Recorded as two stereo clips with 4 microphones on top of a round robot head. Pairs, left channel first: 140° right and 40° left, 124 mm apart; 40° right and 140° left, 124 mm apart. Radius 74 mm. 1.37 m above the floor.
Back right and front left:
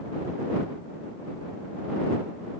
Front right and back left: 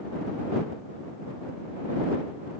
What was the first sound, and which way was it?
Only background noise.